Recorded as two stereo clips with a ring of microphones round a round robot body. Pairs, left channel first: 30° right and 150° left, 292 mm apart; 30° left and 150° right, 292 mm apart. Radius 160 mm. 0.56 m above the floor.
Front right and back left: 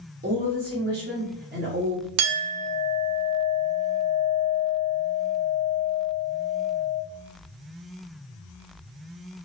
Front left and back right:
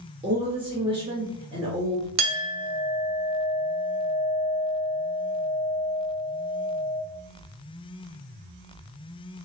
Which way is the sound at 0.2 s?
155° left.